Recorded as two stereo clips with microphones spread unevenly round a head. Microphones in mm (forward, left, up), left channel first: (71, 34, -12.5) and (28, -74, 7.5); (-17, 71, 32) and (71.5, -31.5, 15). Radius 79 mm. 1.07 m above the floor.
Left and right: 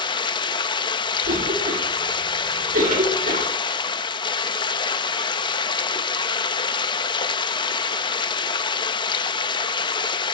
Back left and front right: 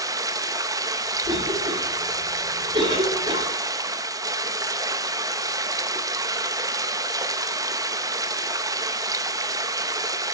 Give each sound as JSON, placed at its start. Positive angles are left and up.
{"t": 0.0, "sound": "running water", "azimuth_deg": 15, "distance_m": 0.8}
{"t": 1.2, "sound": "a cough", "azimuth_deg": -110, "distance_m": 2.0}